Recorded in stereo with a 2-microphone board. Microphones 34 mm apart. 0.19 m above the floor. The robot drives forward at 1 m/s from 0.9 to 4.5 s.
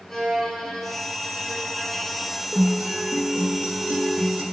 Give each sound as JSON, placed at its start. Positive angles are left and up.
{"t": 0.1, "sound": "a violin", "side_deg": 10, "distance_m": 2.5}
{"t": 2.5, "sound": "a guitar", "side_deg": -35, "distance_m": 2.5}